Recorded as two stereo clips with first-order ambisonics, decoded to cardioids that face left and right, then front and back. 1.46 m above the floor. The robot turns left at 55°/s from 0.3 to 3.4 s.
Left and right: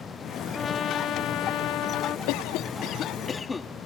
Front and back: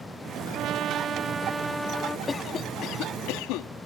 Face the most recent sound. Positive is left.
turn(degrees=15)